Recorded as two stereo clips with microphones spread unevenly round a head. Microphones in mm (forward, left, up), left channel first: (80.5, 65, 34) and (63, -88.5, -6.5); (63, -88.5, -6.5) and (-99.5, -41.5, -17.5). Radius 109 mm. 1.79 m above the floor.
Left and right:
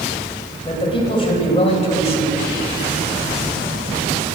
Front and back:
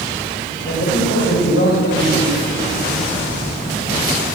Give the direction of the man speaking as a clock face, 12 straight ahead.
11 o'clock.